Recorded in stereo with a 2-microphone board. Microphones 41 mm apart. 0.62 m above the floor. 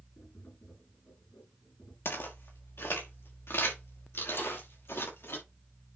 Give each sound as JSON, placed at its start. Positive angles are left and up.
{"t": 0.2, "sound": "tapping", "side_deg": 65, "distance_m": 7.0}
{"t": 2.0, "sound": "footsteps", "side_deg": 75, "distance_m": 4.0}
{"t": 4.4, "sound": "a snare drum", "side_deg": 70, "distance_m": 5.5}